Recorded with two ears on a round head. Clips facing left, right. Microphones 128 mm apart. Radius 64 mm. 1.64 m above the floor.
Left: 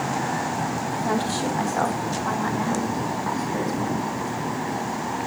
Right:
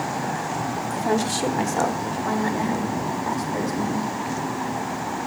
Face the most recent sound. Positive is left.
turn(degrees=-20)  # may be behind; listen again after turning